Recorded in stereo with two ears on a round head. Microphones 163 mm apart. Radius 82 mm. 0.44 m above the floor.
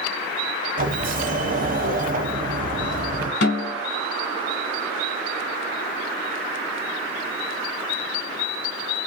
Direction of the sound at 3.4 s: 60° left (ahead or behind).